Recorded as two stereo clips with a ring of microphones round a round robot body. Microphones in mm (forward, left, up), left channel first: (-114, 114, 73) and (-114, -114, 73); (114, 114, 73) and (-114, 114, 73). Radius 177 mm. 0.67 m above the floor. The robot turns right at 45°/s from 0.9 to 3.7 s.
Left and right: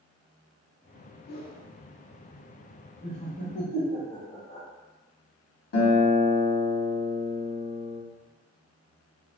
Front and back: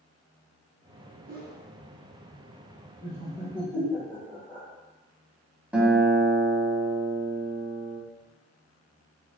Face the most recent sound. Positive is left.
turn(degrees=95)